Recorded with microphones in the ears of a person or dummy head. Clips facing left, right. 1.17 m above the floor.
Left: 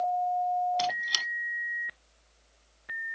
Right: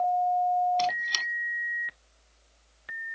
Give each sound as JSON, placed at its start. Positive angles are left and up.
{"t": 0.8, "sound": "a squeak", "side_deg": 10}